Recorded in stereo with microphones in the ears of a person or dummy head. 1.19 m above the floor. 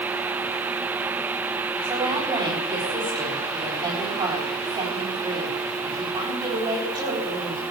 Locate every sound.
1.8 s a woman speaking: 25° right (ahead or behind), 9 m